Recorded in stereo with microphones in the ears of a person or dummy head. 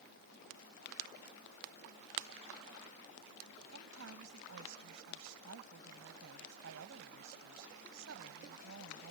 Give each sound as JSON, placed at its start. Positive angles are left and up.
{"t": 3.7, "sound": "a woman speaking", "side_deg": -85}